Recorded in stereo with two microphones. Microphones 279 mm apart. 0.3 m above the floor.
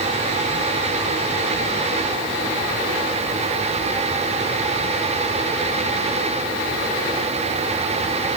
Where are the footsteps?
No footsteps in this recording.